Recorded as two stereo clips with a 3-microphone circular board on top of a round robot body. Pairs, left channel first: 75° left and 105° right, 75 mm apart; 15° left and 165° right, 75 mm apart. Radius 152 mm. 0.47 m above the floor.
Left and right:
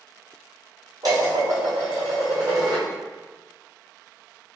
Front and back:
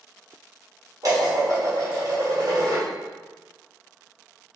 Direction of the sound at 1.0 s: 135° right.